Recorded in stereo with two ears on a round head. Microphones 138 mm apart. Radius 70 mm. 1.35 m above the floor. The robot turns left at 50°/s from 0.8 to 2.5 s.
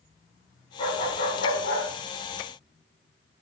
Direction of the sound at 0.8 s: 145° left.